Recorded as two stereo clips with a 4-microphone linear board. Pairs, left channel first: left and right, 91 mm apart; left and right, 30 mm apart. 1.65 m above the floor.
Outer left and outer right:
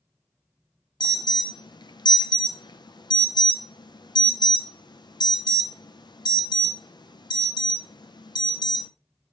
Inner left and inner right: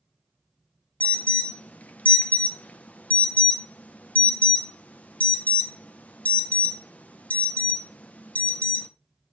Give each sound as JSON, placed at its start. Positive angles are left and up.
{"t": 1.0, "sound": "an alarm", "side_deg": 50, "distance_m": 0.7}